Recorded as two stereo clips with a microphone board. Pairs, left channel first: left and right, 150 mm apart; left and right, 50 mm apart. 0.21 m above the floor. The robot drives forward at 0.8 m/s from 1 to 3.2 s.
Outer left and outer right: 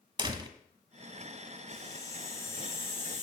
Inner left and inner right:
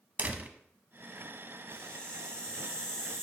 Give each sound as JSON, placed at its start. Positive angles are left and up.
{"t": 0.2, "sound": "a door slam", "side_deg": -30, "distance_m": 1.0}
{"t": 1.7, "sound": "a hiss", "side_deg": 25, "distance_m": 1.6}